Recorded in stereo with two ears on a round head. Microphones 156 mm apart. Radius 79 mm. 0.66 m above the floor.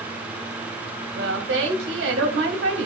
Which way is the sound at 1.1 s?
80° right.